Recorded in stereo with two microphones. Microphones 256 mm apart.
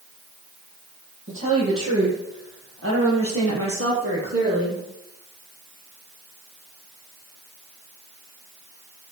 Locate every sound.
1.3 s a woman speaking: 55° right (ahead or behind), 7.5 m; by 4.8 s 60° right (ahead or behind), 5.5 m